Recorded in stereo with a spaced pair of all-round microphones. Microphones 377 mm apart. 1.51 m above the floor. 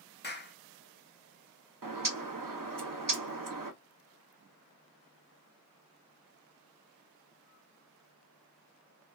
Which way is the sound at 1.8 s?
60° right (ahead or behind).